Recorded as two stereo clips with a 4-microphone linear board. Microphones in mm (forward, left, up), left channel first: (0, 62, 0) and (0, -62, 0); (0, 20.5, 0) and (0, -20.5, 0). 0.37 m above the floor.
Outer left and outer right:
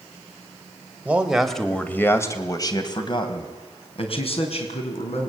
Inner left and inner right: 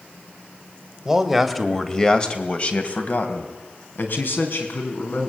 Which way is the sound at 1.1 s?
10° right (ahead or behind).